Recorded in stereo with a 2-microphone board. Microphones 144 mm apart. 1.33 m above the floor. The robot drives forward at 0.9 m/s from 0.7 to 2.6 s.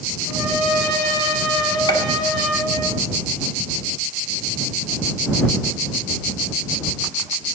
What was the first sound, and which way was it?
A trumpet, 5° left (ahead or behind).